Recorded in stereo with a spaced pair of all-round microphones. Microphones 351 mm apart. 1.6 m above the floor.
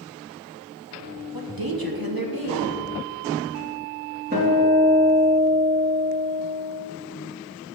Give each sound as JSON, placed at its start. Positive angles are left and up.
{"t": 1.3, "sound": "a woman speaking", "side_deg": -80, "distance_m": 1.9}
{"t": 4.3, "sound": "a guitar", "side_deg": -30, "distance_m": 3.0}